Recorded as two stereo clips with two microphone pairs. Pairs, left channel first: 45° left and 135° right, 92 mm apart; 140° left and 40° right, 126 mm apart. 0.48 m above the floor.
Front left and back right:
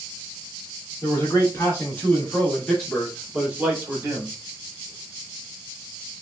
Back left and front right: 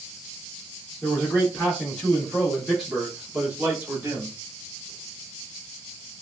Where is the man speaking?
80° left, 1.5 m; by 4.3 s 100° right, 1.4 m.